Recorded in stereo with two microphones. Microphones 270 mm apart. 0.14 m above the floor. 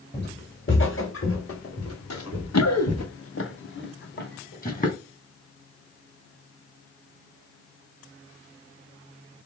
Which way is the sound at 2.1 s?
85° left.